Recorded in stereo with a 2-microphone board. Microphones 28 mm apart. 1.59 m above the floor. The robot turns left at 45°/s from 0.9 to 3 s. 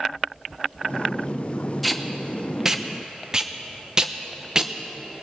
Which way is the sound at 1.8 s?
Centre (ahead or behind).